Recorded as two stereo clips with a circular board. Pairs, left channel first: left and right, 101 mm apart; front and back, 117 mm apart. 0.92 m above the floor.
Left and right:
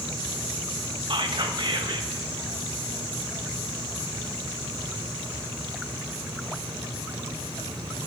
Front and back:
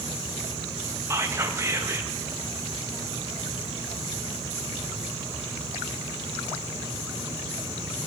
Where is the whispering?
120° right, 0.7 m.